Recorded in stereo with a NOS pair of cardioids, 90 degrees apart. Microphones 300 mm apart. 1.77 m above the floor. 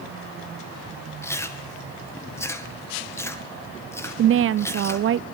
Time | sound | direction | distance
1.2 | chewing | 10° left | 2 m
4.2 | a woman speaking | 45° right | 0.5 m